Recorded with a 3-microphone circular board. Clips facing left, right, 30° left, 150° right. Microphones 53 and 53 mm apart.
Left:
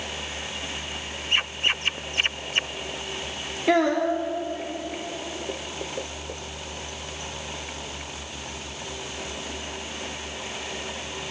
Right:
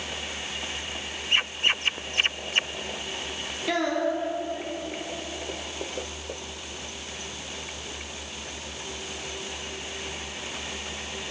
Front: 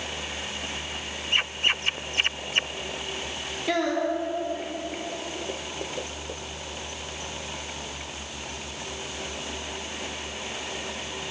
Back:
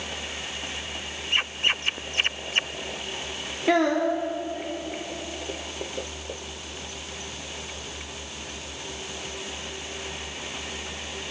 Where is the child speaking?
150° left, 0.6 m.